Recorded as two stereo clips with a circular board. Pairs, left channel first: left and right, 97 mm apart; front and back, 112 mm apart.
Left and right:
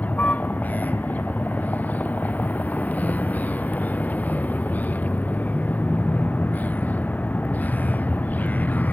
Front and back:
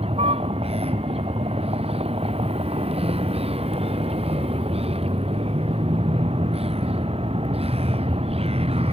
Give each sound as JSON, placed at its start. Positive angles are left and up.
{"t": 0.0, "sound": "a vehicle", "azimuth_deg": 165}